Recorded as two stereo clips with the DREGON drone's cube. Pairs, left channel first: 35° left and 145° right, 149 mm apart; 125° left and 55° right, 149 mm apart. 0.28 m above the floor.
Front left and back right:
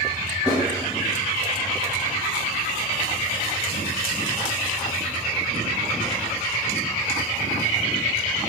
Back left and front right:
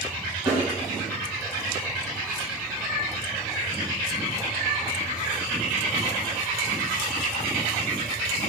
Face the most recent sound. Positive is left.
turn(degrees=-115)